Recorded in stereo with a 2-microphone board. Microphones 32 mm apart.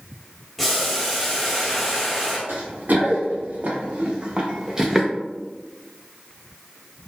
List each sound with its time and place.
0.6 s boiling: 5° left (ahead or behind), 1.1 m
2.5 s running footsteps: 65° right (ahead or behind), 2.0 m; by 5.1 s centre (ahead or behind), 0.8 m